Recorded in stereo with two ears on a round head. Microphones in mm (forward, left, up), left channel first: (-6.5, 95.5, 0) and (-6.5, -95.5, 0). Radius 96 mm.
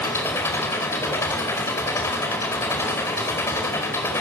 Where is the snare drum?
No snare drum in this recording.